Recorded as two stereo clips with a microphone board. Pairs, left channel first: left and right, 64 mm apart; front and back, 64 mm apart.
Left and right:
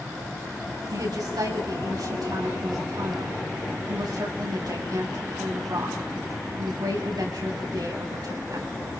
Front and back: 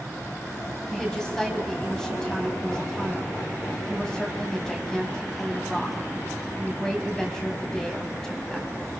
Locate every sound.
0.9 s a woman speaking: 80° right, 5 m